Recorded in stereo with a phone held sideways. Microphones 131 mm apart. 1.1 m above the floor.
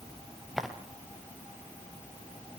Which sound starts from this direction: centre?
Footsteps, at 0.6 s.